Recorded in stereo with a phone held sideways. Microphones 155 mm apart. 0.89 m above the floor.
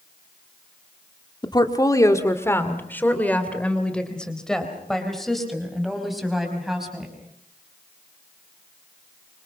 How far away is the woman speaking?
About 2.0 m.